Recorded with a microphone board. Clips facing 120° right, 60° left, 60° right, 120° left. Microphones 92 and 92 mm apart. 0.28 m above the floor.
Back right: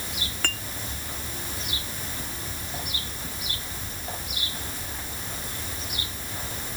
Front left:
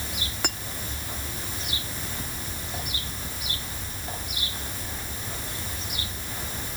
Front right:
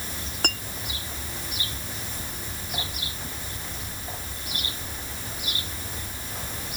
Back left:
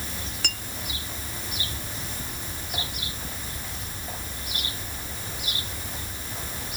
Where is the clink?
15° right.